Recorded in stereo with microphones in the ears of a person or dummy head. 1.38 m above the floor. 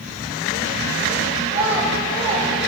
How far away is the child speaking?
About 6 m.